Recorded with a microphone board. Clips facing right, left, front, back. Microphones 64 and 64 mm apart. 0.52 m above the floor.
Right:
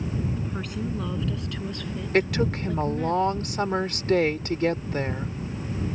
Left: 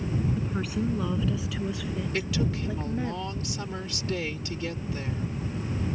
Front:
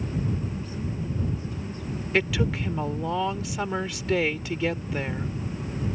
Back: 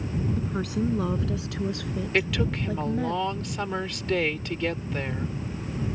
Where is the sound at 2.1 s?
85° right.